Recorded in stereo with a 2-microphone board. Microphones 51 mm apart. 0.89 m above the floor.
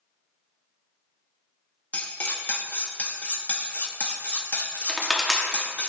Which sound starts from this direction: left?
Cutlery clinking, at 1.9 s.